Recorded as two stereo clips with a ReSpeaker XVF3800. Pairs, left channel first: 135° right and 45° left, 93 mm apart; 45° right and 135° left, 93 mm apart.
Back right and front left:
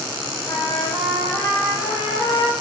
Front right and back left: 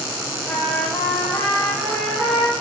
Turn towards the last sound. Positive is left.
turn(degrees=-115)